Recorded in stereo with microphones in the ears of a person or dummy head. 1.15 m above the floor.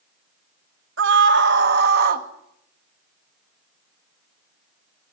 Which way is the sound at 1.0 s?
60° right (ahead or behind).